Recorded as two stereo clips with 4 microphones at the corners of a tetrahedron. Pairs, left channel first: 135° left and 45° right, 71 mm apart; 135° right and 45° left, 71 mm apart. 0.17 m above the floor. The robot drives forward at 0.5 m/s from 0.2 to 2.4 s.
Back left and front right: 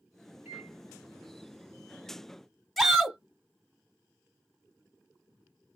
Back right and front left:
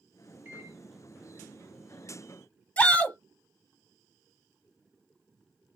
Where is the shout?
135° right, 1.0 m.